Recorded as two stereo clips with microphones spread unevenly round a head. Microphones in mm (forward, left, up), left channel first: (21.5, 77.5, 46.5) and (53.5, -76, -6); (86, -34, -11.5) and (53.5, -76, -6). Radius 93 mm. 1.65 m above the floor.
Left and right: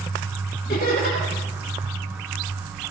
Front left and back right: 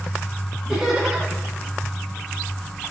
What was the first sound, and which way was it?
Laughter, 145° left.